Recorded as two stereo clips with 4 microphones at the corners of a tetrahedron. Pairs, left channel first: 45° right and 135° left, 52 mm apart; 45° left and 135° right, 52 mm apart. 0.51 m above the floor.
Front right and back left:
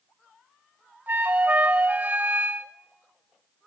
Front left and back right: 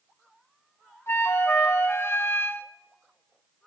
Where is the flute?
75° left, 1.0 m.